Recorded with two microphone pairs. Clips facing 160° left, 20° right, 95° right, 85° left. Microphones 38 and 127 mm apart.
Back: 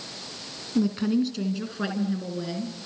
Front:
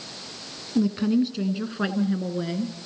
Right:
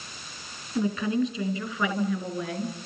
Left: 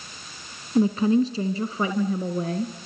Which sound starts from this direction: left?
A woman speaking, at 0.8 s.